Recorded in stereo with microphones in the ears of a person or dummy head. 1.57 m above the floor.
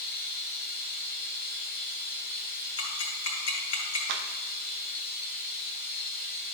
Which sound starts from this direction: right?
A clap, at 4.1 s.